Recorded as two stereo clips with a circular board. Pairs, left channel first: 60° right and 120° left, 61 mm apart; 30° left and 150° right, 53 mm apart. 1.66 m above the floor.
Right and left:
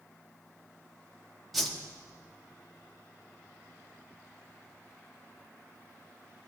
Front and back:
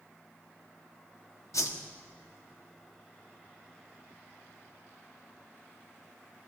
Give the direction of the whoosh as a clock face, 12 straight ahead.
11 o'clock.